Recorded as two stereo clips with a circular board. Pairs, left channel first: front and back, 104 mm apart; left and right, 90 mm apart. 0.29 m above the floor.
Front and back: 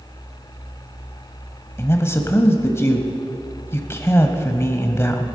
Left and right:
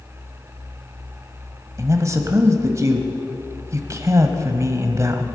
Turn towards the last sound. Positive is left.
turn(degrees=-55)